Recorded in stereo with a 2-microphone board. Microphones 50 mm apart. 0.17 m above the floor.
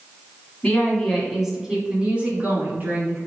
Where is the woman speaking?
20° left (ahead or behind), 1.1 m; by 3.2 s 45° right (ahead or behind), 1.7 m.